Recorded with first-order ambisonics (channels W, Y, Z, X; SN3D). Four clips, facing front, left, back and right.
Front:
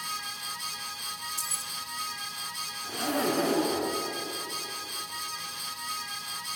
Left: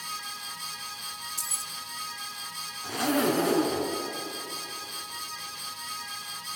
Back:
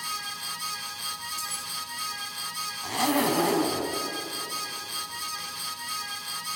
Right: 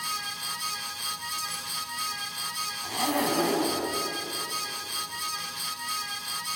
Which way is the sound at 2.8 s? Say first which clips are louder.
Left 2 dB, back 4 dB; 160° right.